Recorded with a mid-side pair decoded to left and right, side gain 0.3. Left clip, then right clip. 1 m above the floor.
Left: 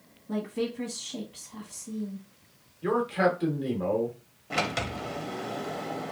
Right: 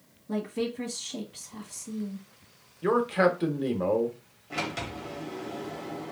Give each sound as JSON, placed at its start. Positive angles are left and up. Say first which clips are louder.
{"t": 0.3, "sound": "a woman speaking", "louder": "even", "azimuth_deg": -15, "distance_m": 0.9}
{"t": 2.8, "sound": "a man speaking", "louder": "right 2 dB", "azimuth_deg": -50, "distance_m": 1.0}
{"t": 4.5, "sound": "a sliding door", "louder": "left 4 dB", "azimuth_deg": 65, "distance_m": 0.7}